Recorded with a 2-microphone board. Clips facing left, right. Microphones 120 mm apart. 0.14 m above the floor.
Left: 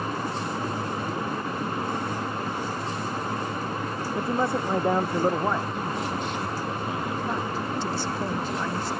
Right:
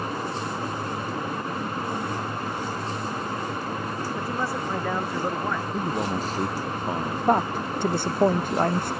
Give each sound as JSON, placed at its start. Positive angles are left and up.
{"t": 4.2, "sound": "a man speaking", "side_deg": 25}
{"t": 5.7, "sound": "a man speaking", "side_deg": -40}
{"t": 7.3, "sound": "a woman speaking", "side_deg": -55}